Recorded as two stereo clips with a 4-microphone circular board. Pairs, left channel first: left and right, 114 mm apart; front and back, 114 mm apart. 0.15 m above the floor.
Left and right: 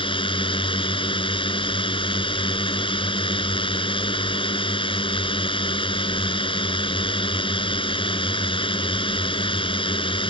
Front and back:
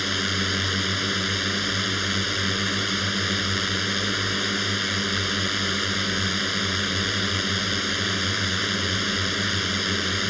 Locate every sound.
0.0 s a drone: 90° left